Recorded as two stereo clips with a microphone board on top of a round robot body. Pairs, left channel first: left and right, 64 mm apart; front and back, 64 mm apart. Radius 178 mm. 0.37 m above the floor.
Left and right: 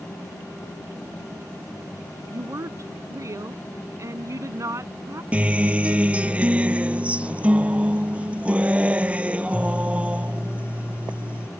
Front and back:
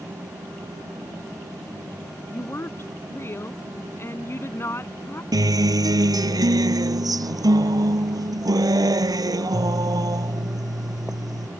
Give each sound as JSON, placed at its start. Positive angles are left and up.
{"t": 2.3, "sound": "a woman speaking", "azimuth_deg": -50}
{"t": 5.3, "sound": "a guitar", "azimuth_deg": -160}